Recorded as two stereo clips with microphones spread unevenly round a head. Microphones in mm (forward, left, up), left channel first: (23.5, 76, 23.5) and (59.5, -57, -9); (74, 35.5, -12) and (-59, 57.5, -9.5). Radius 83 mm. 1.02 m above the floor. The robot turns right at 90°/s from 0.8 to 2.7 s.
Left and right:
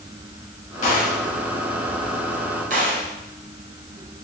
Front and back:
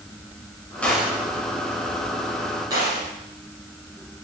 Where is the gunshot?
70° left, 4.5 m; by 3.1 s 120° right, 4.5 m.